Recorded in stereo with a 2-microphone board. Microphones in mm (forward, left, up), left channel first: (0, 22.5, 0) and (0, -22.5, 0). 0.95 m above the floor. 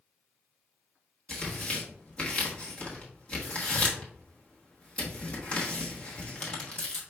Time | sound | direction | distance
1.3 | tearing paper | 25° left (ahead or behind) | 1.2 m